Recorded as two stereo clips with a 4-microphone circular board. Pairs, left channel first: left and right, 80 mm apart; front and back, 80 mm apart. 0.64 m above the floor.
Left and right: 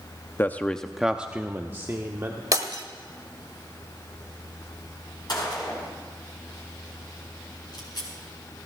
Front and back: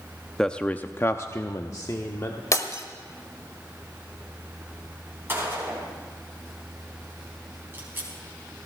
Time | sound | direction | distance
0.4 | a man speaking | 75° left | 0.5 m
2.5 | breaking glass | 45° right | 1.2 m
5.3 | a gunshot | 120° left | 4.5 m